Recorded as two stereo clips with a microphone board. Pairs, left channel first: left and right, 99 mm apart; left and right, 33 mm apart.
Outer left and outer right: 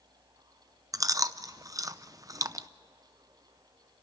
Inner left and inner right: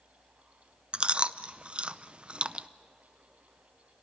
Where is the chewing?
35° right (ahead or behind), 0.6 m.